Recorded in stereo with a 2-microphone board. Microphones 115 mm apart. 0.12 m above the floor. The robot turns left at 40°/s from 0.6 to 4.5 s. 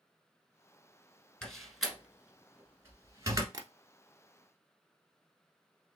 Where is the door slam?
5° left (ahead or behind), 1.2 m; by 3.4 s 30° right (ahead or behind), 1.2 m.